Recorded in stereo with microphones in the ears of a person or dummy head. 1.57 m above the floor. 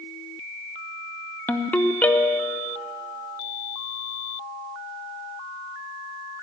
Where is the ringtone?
10° left (ahead or behind), 0.7 m.